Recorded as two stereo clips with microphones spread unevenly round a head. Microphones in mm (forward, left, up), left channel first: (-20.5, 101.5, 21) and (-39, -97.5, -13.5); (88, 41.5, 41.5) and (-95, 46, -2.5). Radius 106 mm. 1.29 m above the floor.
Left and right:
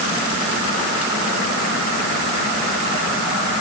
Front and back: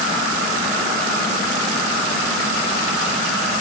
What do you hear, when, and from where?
Only background noise.